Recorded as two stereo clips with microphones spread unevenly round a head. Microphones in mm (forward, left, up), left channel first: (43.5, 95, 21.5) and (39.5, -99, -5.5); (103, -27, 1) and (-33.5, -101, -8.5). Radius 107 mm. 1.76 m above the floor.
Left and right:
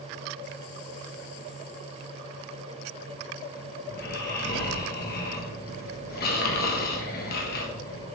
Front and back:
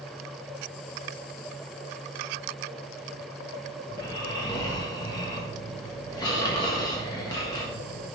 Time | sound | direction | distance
3.9 | snoring | 90° left | 1.3 m